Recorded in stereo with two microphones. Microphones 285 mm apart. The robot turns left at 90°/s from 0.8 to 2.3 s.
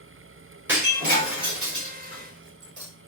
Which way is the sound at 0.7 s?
5° right (ahead or behind).